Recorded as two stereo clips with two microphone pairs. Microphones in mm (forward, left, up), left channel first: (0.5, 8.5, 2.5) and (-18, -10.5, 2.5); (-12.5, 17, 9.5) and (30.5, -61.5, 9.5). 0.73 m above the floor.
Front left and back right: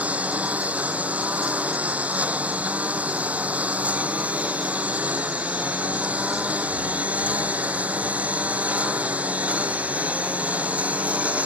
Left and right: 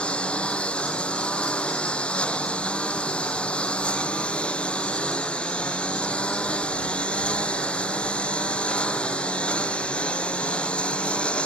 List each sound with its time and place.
0.0 s a lawn mower: 165° right